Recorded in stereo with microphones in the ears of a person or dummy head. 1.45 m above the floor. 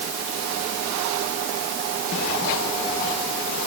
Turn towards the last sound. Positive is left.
No sound to turn to.